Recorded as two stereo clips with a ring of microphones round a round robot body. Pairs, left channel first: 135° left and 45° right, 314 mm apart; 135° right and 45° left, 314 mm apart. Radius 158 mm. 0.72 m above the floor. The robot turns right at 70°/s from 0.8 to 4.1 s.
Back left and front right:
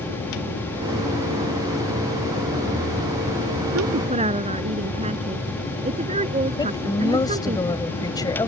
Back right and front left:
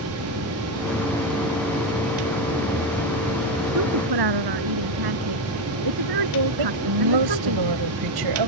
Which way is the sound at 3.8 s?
Straight ahead.